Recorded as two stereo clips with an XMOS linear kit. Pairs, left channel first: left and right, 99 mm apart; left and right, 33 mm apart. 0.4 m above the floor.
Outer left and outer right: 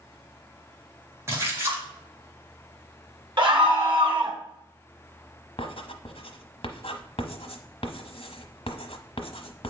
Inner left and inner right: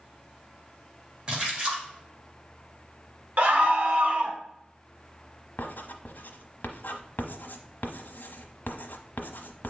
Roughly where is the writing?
Left.